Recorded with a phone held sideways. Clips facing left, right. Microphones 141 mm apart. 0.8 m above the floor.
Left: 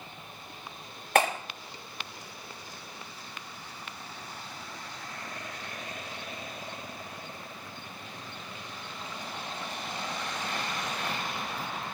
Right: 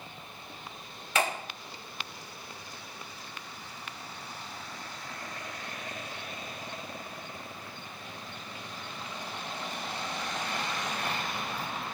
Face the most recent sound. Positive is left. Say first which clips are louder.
# left 5 dB
turn(degrees=60)  # may be behind; listen again after turning